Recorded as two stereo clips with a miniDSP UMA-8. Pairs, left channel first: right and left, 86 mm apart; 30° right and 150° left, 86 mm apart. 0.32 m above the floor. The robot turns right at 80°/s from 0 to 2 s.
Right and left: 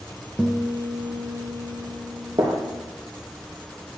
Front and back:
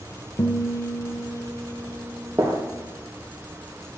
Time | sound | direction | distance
0.4 | a guitar | 10° left | 1.4 m
2.4 | a gunshot | 75° left | 3 m